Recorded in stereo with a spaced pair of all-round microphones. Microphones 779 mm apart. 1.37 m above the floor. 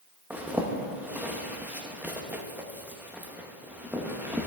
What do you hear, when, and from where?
0.3 s a zipper: 5° right (ahead or behind), 0.6 m